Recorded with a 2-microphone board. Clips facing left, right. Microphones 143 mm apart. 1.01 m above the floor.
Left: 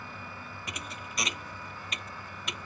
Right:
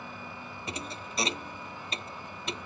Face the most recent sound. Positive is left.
turn(degrees=-30)  # may be behind; listen again after turning